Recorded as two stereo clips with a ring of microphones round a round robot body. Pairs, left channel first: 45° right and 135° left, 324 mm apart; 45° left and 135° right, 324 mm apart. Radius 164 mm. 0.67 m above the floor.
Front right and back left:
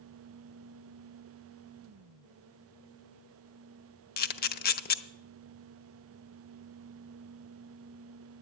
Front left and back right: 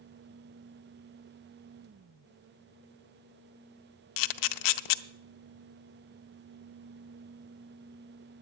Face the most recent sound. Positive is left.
turn(degrees=15)